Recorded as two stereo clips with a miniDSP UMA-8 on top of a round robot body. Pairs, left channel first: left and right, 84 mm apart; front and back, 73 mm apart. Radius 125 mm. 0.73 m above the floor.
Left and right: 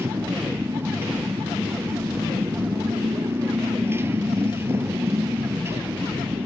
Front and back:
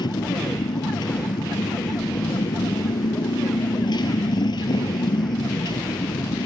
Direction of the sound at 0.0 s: 25° right.